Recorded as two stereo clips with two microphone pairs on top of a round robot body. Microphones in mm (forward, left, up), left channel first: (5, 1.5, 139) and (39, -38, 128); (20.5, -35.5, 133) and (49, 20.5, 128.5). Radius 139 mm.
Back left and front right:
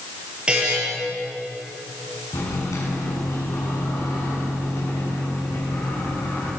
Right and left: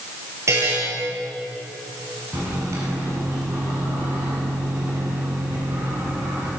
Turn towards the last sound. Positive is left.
turn(degrees=110)